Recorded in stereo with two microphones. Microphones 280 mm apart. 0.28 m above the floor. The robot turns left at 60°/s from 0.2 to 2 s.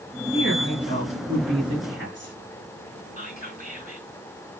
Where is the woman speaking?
60° left, 4 m; by 2.3 s 45° right, 4 m.